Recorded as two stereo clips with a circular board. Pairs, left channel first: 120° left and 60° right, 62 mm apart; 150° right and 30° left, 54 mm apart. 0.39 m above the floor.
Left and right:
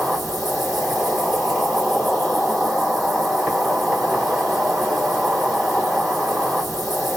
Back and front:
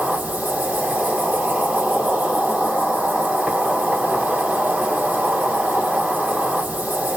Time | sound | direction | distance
0.0 | an insect | 20° left | 1.5 m